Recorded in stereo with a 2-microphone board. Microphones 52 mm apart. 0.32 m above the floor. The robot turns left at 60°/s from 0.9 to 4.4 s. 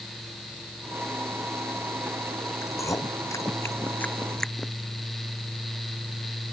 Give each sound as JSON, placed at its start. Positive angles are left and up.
{"t": 2.6, "sound": "chewing", "side_deg": 65}